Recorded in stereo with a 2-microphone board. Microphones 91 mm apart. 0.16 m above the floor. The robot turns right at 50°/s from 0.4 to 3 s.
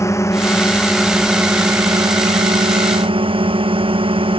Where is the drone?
145° left; by 4.4 s 85° right.